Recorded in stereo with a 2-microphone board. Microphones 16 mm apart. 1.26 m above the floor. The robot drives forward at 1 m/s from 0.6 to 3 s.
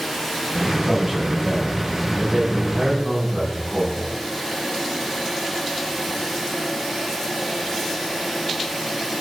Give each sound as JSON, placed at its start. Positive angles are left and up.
{"t": 0.8, "sound": "a man speaking", "side_deg": -25, "distance_m": 8.0}